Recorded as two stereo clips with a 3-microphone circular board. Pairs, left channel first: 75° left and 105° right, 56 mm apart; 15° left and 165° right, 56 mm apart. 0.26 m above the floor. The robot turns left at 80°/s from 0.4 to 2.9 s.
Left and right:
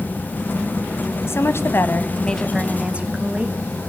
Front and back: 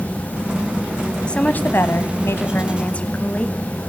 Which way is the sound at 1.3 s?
85° left.